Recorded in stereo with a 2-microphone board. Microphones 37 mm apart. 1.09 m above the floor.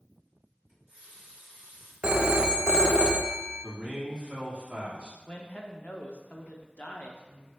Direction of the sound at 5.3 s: 40° left (ahead or behind).